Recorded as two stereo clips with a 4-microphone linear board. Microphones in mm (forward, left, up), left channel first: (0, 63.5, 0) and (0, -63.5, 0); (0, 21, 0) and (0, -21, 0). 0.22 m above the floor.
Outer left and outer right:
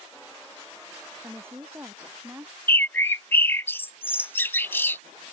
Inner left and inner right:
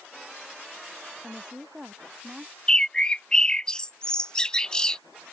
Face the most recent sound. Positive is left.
turn(degrees=15)  # may be behind; listen again after turning